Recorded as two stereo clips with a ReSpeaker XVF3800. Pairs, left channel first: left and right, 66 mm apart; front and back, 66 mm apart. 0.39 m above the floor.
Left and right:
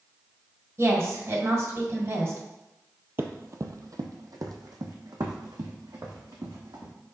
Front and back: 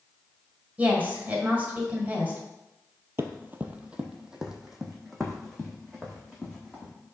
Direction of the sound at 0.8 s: 120° right.